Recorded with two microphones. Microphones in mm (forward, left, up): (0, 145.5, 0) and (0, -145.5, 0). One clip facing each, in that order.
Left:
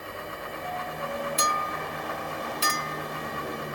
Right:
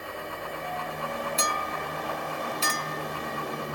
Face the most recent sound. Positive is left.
turn(degrees=20)  # may be behind; listen again after turning